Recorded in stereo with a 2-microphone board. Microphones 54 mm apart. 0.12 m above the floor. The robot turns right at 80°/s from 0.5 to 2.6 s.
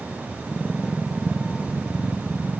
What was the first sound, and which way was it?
Only background noise.